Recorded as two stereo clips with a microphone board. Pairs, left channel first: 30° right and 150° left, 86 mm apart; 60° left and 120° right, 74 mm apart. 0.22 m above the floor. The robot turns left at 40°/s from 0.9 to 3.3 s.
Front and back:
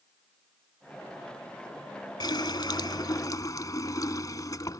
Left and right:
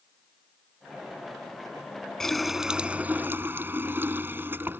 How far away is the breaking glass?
I don't hear breaking glass.